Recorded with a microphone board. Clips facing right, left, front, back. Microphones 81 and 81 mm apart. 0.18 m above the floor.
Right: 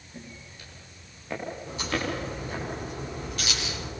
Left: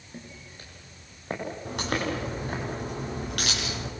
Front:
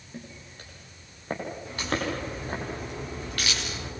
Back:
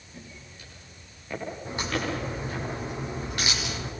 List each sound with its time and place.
0.1 s footsteps: 40° left, 9.5 m; by 2.6 s 45° left, 11 m
1.6 s a crack: 110° left, 8.5 m